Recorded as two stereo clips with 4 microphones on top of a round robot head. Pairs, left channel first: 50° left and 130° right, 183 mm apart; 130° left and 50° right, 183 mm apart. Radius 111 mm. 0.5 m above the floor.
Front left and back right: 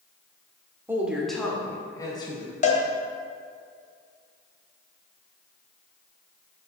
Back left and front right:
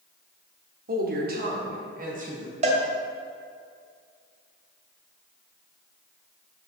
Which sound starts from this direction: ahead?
A cowbell, at 2.6 s.